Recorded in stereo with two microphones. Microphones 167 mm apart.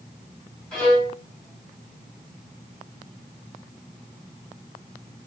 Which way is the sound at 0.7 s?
5° left (ahead or behind).